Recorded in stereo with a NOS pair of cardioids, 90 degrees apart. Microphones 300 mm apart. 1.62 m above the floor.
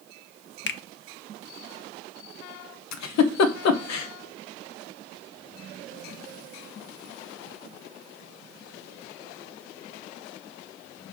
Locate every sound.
0.7 s a finger snap: 40° left, 1.0 m
2.9 s a giggle: 65° left, 1.2 m